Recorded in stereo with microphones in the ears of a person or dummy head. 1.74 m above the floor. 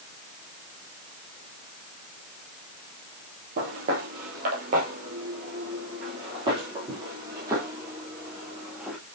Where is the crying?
I don't hear crying.